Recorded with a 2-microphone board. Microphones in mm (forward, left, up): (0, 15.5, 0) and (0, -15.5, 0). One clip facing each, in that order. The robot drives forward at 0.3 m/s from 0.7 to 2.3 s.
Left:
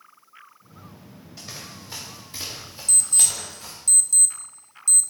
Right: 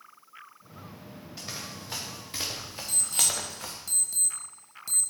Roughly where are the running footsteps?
Centre.